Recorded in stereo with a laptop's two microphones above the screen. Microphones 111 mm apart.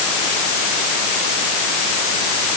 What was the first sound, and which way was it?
Only background noise.